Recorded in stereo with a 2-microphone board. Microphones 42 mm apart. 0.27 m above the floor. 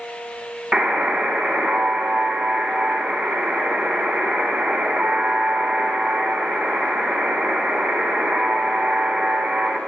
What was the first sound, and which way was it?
A buzzer, 20° right (ahead or behind).